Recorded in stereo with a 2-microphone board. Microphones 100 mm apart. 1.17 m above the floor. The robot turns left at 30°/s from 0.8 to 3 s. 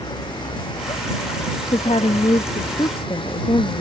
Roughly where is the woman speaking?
Left.